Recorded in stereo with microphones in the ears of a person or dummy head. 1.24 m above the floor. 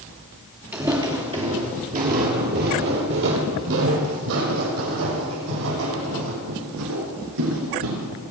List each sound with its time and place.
0.7 s footsteps: 10° right (ahead or behind), 1.5 m; by 8.1 s 75° right (ahead or behind), 4.5 m